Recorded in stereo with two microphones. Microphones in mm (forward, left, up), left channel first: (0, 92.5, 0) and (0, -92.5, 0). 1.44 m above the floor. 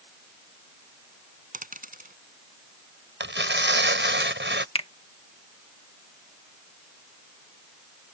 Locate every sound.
1.5 s a dropped coin: 50° right (ahead or behind)
3.2 s tearing paper: 85° right
4.8 s a finger snap: 35° left (ahead or behind)